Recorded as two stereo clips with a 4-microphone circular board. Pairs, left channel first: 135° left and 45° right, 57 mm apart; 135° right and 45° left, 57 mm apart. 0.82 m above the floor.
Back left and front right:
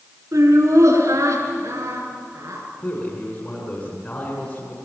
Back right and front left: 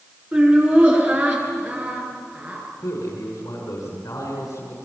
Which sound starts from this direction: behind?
A man speaking, at 2.8 s.